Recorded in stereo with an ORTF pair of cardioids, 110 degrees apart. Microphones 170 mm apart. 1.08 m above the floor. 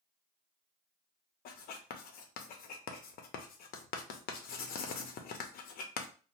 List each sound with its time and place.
1.4 s writing: 65° left, 0.6 m